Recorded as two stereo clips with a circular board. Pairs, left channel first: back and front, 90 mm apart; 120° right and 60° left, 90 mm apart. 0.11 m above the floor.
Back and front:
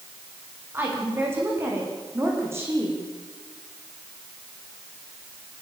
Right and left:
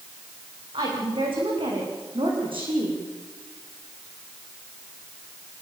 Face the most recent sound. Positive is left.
turn(degrees=60)